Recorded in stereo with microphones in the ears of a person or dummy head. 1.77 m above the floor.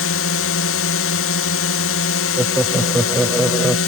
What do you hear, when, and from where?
0.0 s a drone: 65° left (ahead or behind)
2.4 s laughter: centre (ahead or behind)